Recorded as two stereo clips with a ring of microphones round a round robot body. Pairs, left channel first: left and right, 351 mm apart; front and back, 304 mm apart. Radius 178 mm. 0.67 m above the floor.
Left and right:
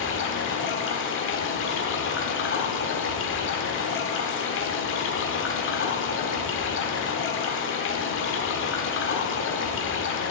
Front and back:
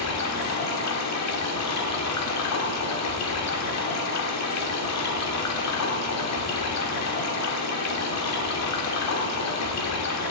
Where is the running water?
35° left, 1.5 m.